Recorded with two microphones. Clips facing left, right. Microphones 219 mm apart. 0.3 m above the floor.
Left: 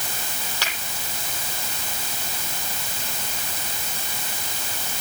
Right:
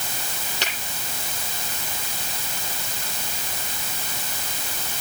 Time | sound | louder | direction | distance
0.6 | a finger snap | right 3 dB | 20° right (ahead or behind) | 8 m